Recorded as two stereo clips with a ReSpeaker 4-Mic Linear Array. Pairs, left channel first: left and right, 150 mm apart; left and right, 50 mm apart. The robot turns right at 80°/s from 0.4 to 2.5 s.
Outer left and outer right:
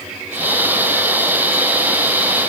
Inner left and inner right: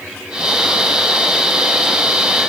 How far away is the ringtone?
I don't hear a ringtone.